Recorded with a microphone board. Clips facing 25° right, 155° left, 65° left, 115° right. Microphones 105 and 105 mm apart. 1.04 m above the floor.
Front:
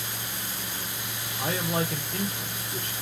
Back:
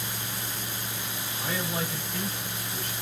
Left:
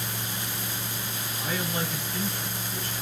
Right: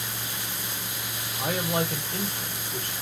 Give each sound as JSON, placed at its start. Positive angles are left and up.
{"t": 1.4, "sound": "a man speaking", "azimuth_deg": -65, "distance_m": 2.0}